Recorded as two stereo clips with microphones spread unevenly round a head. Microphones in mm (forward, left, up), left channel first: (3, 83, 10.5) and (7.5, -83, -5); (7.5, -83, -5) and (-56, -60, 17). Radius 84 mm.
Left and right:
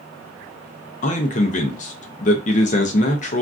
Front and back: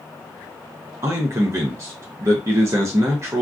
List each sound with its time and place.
1.0 s a man speaking: 100° left, 0.5 m